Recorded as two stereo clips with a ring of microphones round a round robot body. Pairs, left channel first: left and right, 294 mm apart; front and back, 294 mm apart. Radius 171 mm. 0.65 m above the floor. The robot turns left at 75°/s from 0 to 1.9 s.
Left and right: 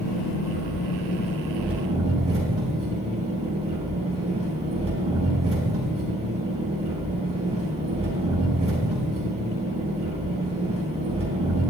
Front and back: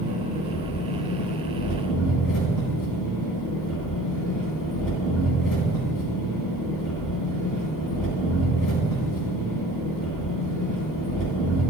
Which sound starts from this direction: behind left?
An engine running, at 0.0 s.